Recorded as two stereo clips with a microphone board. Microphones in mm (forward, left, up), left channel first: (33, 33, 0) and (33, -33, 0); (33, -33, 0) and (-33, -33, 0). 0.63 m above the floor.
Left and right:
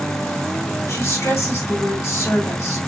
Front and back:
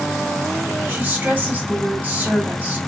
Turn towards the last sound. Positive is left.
turn(degrees=120)